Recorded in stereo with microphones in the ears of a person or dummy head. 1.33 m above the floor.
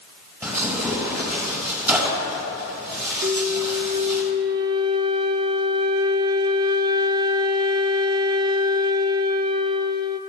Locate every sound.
0.4 s tearing paper: 20° right (ahead or behind), 6 m
3.2 s a flute: 25° right (ahead or behind), 0.6 m